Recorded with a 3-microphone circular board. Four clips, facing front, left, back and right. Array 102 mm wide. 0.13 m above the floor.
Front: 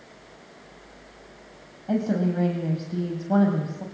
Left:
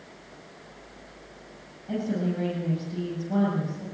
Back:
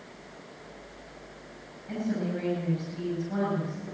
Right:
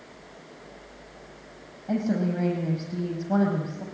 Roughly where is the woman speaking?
Ahead right.